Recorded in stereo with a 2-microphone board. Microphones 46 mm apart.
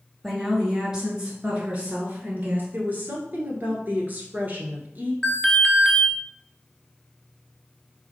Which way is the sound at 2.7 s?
40° right (ahead or behind).